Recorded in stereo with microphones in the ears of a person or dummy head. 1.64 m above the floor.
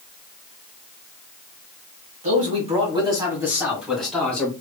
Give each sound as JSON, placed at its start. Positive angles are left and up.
{"t": 2.2, "sound": "a man speaking", "side_deg": -35, "distance_m": 1.7}